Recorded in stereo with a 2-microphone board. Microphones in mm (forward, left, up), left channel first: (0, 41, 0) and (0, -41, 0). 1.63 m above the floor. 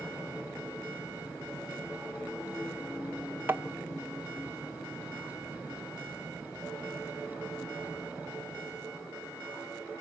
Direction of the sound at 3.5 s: 25° right (ahead or behind).